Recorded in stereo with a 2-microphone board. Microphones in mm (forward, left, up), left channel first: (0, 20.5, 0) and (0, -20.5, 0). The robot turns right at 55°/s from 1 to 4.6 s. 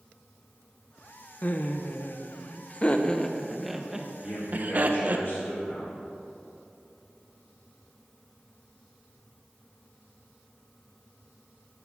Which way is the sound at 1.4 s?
40° left (ahead or behind).